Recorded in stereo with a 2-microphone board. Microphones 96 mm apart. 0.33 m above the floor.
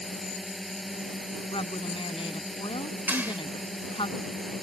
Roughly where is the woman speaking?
Left.